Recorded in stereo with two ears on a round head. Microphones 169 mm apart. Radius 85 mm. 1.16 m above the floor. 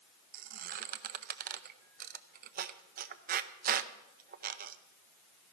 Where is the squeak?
45° right (ahead or behind), 0.6 m.